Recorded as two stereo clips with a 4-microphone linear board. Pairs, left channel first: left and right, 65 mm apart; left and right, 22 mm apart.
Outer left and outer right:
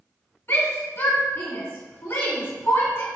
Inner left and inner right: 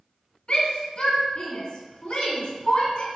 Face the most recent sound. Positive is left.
turn(degrees=40)  # may be behind; listen again after turning